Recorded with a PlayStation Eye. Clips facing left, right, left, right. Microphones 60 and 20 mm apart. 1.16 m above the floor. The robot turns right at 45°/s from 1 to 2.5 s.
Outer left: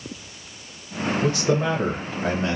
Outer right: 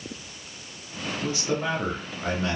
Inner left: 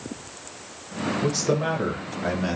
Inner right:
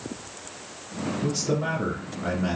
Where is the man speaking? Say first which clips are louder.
Outer left 5 dB, inner left 2 dB; 75° left, 1.4 m; by 2.6 s 135° left, 1.4 m.